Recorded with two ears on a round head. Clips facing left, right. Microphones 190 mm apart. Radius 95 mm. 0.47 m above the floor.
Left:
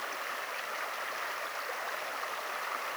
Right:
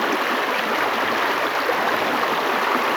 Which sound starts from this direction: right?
Running water, at 0.0 s.